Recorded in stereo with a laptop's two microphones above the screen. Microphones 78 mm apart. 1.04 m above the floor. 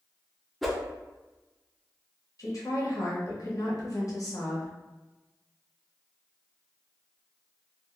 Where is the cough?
I don't hear a cough.